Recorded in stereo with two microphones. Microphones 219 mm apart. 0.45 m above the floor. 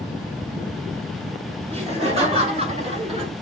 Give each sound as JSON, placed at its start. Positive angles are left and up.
{"t": 1.7, "sound": "laughter", "side_deg": -30, "distance_m": 3.0}